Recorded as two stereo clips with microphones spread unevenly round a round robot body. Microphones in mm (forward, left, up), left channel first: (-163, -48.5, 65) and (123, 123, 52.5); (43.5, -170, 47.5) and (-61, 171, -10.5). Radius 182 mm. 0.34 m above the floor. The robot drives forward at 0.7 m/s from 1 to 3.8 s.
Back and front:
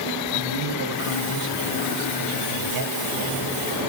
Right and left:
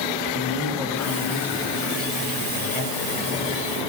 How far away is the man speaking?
About 3.5 m.